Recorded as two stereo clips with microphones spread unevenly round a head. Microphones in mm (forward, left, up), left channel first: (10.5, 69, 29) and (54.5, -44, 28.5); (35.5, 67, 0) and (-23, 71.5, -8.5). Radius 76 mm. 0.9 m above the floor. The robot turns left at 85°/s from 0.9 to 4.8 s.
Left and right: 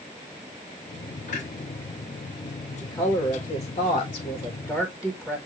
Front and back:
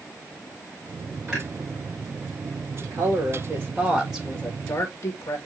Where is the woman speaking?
170° right, 1.4 m; by 5.4 s 20° left, 1.4 m.